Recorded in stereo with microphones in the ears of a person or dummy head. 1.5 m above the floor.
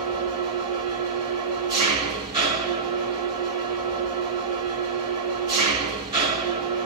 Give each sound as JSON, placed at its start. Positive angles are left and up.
{"t": 0.0, "sound": "an engine running", "side_deg": -15, "distance_m": 2.0}